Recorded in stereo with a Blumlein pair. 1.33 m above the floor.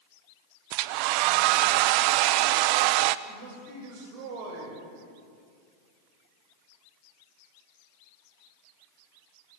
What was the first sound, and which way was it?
A hair dryer, 45° right.